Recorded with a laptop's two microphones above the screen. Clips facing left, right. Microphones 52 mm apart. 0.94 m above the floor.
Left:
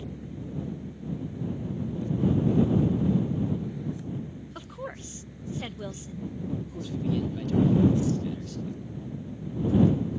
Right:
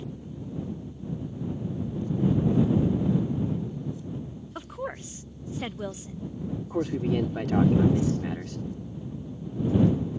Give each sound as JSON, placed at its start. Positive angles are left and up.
{"t": 0.0, "sound": "a fan", "side_deg": 70}
{"t": 4.5, "sound": "a woman speaking", "side_deg": -15}
{"t": 6.7, "sound": "a man speaking", "side_deg": -65}